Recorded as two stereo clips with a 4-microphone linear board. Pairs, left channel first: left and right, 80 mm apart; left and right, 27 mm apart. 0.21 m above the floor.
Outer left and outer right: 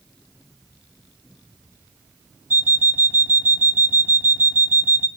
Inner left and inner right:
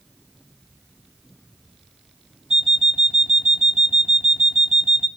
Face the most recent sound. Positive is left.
turn(degrees=-25)  # may be behind; listen again after turning